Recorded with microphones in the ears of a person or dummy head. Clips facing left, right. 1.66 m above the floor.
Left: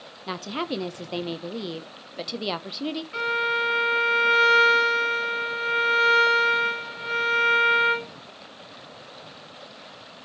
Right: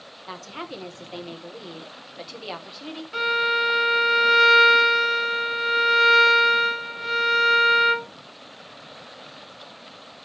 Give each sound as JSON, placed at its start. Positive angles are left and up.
{"t": 0.3, "sound": "a woman speaking", "side_deg": 60, "distance_m": 1.1}
{"t": 3.1, "sound": "a violin", "side_deg": -20, "distance_m": 2.0}